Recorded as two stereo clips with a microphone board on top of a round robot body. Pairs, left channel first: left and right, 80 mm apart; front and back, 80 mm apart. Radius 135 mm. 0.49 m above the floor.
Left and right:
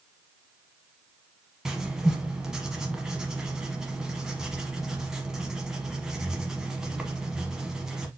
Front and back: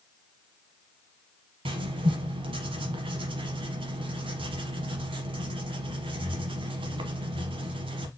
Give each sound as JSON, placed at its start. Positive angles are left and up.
{"t": 1.6, "sound": "writing", "azimuth_deg": -175, "distance_m": 0.9}